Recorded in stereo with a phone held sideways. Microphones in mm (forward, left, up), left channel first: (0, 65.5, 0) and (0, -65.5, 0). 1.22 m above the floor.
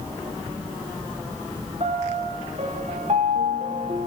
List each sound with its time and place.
1.8 s a piano: 55° right (ahead or behind), 4 m